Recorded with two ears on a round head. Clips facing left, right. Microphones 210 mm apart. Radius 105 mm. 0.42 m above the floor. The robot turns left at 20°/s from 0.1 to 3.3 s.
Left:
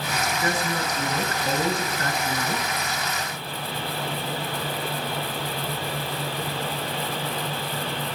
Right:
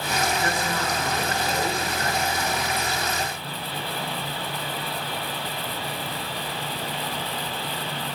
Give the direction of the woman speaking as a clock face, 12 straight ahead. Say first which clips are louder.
Left 1 dB; 7 o'clock.